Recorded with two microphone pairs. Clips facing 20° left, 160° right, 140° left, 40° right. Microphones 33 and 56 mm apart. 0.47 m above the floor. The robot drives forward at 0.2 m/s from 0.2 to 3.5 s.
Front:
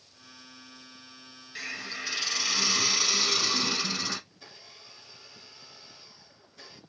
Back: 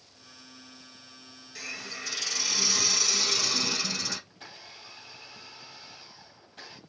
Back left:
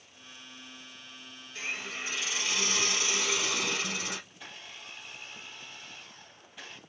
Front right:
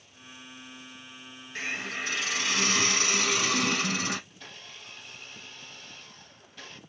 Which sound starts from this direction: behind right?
A blender, at 4.3 s.